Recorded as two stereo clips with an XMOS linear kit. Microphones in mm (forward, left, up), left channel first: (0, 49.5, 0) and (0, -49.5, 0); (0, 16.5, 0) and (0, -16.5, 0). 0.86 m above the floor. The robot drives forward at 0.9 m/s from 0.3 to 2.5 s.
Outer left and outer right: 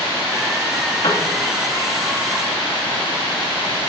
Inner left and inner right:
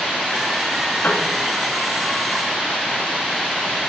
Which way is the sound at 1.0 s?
55° left (ahead or behind).